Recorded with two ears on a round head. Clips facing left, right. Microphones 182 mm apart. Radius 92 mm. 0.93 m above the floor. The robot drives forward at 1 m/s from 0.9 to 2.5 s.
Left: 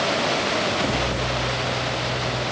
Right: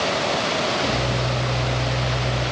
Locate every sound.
Only background noise.